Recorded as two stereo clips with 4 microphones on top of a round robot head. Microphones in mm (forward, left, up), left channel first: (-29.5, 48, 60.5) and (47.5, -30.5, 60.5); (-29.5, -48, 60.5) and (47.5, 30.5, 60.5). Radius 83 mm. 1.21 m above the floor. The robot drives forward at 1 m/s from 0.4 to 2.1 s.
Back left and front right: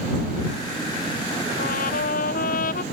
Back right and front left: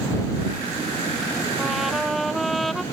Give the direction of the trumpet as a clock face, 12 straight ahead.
8 o'clock.